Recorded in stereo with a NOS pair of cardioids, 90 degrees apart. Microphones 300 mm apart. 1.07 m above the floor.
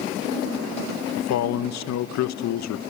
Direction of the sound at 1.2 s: 60° left.